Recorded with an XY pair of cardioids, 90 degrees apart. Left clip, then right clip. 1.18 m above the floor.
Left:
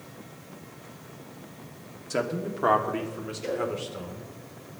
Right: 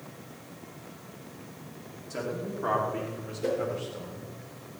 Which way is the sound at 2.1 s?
70° left.